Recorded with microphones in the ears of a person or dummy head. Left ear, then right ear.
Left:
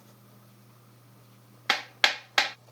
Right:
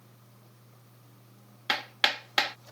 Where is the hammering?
15° left (ahead or behind).